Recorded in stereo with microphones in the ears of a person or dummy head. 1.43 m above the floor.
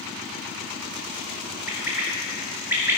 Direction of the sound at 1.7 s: 10° right (ahead or behind).